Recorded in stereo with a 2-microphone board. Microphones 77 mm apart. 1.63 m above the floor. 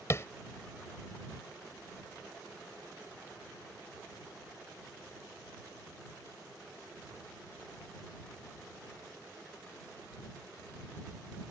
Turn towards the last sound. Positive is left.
turn(degrees=35)  # may be behind; listen again after turning